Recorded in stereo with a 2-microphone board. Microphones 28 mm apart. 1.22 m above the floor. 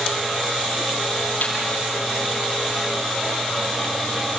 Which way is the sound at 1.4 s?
70° left (ahead or behind).